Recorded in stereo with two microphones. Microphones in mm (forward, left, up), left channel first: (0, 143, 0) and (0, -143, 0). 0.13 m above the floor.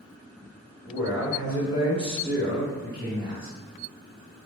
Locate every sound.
0.8 s a man speaking: 15° right (ahead or behind), 2.0 m